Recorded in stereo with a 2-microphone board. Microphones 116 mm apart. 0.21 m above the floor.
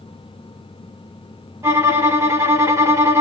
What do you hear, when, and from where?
1.6 s a violin: 25° right (ahead or behind), 1.0 m